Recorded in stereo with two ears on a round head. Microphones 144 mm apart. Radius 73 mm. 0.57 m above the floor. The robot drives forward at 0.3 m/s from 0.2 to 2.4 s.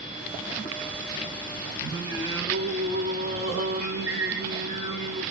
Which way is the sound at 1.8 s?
25° right (ahead or behind).